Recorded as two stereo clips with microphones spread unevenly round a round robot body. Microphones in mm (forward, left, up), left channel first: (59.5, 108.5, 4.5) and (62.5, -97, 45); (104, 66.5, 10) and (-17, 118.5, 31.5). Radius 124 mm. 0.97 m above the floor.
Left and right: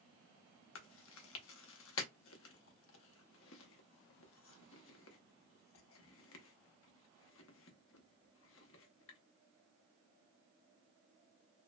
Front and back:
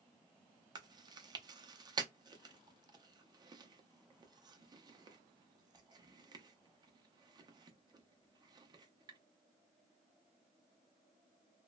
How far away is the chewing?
About 0.5 m.